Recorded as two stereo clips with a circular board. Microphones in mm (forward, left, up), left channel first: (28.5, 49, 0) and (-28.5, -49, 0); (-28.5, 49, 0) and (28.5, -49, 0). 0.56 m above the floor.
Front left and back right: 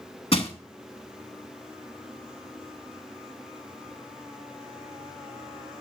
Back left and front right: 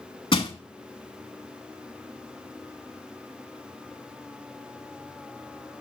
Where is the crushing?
85° left, 0.8 m.